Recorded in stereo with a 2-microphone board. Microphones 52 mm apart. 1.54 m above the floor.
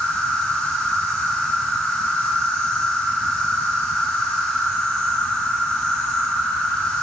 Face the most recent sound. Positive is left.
turn(degrees=20)  # may be behind; listen again after turning